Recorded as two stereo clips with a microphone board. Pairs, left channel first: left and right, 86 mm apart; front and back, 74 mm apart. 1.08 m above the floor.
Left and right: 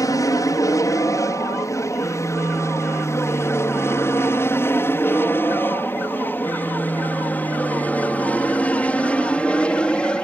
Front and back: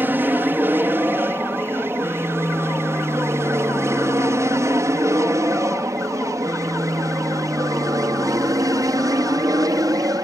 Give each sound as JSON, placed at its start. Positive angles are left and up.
{"t": 0.0, "sound": "an aircraft", "azimuth_deg": 125}